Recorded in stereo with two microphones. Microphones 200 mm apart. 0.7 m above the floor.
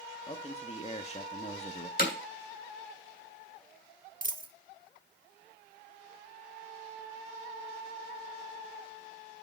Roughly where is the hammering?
Left.